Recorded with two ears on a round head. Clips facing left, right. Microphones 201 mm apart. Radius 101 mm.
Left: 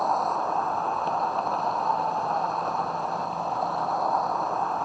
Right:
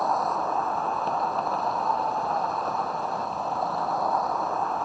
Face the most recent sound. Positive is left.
turn(degrees=0)  # may be behind; listen again after turning